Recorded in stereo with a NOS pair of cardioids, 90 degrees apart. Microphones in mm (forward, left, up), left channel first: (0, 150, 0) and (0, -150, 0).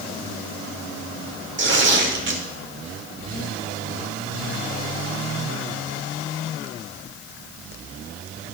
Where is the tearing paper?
35° right, 1.9 m.